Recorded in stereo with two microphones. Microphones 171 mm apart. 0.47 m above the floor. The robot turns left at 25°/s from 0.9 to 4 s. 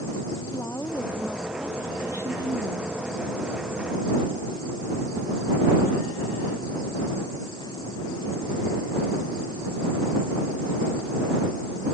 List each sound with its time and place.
0.5 s a woman speaking: 15° left; by 3.0 s 35° right